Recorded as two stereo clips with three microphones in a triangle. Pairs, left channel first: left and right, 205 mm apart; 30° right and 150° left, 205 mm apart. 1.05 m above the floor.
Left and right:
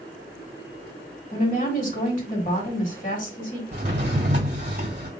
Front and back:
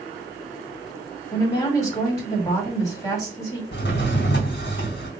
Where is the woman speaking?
45° left, 1.7 m.